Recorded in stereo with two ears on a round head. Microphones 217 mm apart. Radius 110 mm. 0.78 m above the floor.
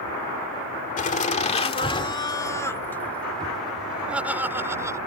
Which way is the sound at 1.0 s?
35° left (ahead or behind).